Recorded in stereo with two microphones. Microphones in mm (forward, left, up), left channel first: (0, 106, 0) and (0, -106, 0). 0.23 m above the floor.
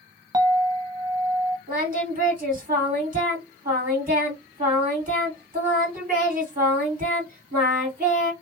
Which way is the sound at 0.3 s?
15° right (ahead or behind).